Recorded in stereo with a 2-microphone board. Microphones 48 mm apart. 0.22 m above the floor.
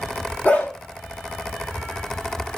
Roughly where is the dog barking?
Left.